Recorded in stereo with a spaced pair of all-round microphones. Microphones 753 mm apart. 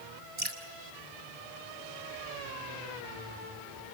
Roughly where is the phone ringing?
No phone ringing in this recording.